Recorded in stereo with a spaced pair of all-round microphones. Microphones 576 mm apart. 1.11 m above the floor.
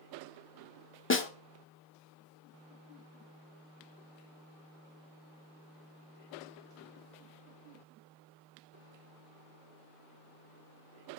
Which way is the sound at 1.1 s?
20° left (ahead or behind).